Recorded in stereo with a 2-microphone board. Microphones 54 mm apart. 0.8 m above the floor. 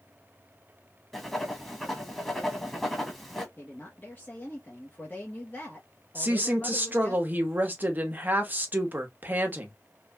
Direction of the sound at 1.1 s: 5° left (ahead or behind).